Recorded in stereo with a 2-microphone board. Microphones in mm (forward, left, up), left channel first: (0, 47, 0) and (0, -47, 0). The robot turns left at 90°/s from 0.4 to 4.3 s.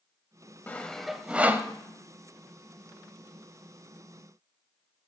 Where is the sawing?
20° left (ahead or behind), 0.5 m; by 1.7 s 25° right (ahead or behind), 0.5 m.